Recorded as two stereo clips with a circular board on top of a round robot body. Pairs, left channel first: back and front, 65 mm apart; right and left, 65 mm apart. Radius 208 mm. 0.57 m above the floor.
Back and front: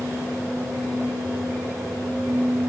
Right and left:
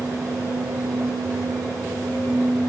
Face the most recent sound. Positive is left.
No sound to turn to.